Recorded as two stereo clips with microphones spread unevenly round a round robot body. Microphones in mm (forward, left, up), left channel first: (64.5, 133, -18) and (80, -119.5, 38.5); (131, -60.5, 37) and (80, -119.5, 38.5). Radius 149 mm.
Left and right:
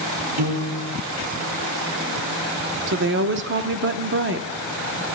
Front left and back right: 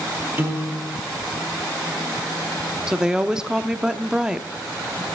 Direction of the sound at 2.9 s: 50° right.